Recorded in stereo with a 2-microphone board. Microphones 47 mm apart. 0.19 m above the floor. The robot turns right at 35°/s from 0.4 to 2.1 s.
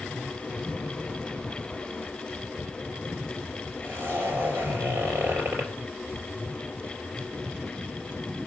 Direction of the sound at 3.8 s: 45° right (ahead or behind).